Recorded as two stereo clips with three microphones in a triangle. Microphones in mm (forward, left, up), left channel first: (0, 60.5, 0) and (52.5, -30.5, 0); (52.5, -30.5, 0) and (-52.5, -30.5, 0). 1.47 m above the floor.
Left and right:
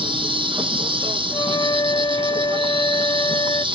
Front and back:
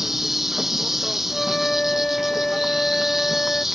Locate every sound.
0.0 s an insect: 95° right
1.3 s a flute: 80° left